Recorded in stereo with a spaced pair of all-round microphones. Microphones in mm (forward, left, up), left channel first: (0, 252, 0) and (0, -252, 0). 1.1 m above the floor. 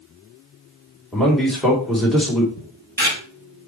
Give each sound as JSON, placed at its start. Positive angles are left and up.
{"t": 1.1, "sound": "a man speaking", "side_deg": 0, "distance_m": 2.5}
{"t": 2.6, "sound": "a camera shutter", "side_deg": -20, "distance_m": 5.0}